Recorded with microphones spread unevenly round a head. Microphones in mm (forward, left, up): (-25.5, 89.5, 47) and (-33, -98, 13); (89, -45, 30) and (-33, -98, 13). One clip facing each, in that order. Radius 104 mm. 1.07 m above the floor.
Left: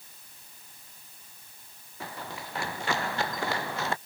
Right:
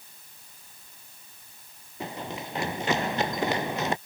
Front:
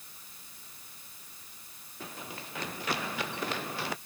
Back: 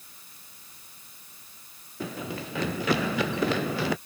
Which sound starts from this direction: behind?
Running footsteps, at 2.0 s.